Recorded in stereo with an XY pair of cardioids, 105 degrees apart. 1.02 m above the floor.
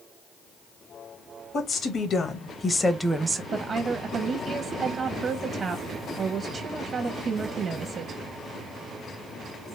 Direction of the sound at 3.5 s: 40° right.